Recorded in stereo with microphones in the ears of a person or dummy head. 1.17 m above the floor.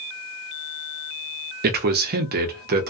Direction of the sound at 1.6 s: 50° right (ahead or behind).